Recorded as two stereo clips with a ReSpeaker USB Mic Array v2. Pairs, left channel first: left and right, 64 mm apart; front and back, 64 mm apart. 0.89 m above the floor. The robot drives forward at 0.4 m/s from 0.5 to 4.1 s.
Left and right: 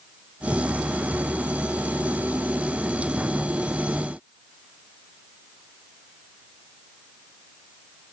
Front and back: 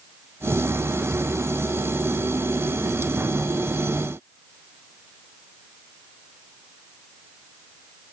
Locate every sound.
Only background noise.